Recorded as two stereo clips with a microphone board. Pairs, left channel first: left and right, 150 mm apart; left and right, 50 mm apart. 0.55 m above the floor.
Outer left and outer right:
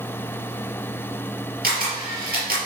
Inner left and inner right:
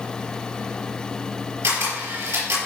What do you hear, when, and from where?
1.6 s a camera shutter: 85° right, 4.5 m